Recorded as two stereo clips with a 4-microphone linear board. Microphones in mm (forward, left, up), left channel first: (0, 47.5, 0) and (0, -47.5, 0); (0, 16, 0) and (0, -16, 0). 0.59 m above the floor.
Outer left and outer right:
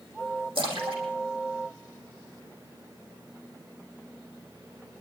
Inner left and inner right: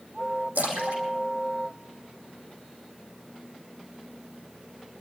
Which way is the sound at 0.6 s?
75° right (ahead or behind).